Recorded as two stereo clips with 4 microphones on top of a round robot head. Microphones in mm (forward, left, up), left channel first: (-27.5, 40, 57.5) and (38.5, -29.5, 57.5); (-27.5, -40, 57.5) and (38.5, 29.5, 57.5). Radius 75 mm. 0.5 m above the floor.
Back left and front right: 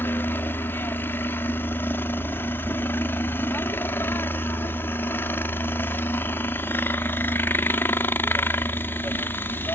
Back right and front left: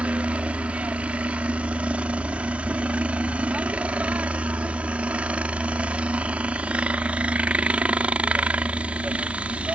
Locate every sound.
0.0 s a helicopter: 105° left